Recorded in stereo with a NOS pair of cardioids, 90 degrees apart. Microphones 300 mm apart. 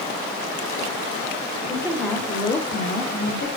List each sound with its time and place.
1.7 s a woman speaking: 15° right, 0.9 m; by 3.5 s 45° left, 1.2 m